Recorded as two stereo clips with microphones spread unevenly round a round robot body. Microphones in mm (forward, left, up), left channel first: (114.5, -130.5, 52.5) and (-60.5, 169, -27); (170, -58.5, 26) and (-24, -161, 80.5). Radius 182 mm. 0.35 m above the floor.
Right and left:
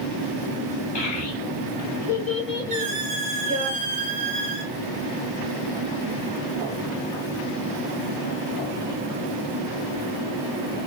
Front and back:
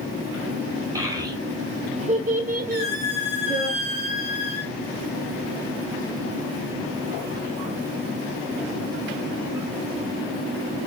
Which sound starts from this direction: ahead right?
A child speaking, at 0.9 s.